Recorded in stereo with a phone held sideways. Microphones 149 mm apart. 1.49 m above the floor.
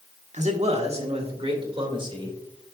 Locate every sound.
0.3 s a man speaking: 55° right (ahead or behind), 1.3 m; by 2.4 s 35° right (ahead or behind), 2.5 m